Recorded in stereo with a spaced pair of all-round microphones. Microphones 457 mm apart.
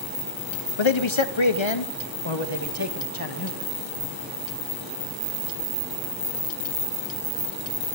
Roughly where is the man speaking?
Left.